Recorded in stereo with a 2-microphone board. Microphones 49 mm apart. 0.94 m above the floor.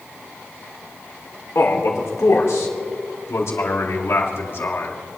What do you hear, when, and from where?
1.6 s a man speaking: 75° left (ahead or behind), 3 m; by 4.9 s 50° left (ahead or behind), 1.8 m